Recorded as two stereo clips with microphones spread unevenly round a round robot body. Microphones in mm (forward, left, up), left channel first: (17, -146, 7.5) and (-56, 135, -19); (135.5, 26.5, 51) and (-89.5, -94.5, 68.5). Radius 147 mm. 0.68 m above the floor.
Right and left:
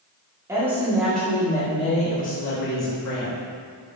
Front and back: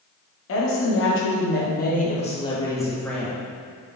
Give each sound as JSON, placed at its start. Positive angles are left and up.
{"t": 0.5, "sound": "a woman speaking", "azimuth_deg": 25, "distance_m": 1.8}